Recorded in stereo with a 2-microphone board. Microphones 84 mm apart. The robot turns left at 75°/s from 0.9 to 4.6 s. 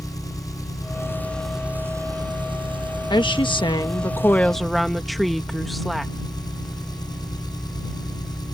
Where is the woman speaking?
115° left; by 6.1 s straight ahead.